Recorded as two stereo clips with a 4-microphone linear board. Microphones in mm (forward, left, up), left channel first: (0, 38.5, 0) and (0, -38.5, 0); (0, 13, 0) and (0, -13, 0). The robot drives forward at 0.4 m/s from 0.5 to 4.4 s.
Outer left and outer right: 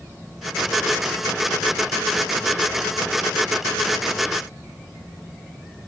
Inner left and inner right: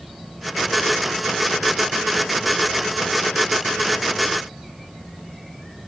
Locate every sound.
Only background noise.